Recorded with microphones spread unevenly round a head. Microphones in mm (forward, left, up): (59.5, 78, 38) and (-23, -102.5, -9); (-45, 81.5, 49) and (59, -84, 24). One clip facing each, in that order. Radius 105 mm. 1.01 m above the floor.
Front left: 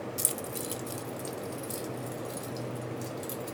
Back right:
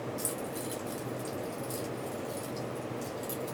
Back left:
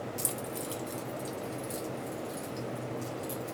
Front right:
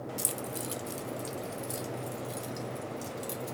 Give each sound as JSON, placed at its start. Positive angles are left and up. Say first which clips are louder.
{"t": 0.2, "sound": "keys jangling", "louder": "back right 1 dB, even", "azimuth_deg": 20, "distance_m": 0.7}